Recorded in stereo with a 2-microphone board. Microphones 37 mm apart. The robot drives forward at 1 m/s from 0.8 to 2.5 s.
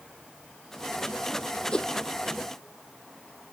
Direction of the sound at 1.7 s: 20° left (ahead or behind).